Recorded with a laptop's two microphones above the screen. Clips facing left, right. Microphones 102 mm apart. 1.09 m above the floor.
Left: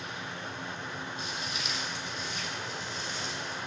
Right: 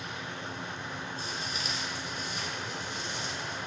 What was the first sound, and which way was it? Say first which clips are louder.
Footsteps: even; 35° right (ahead or behind).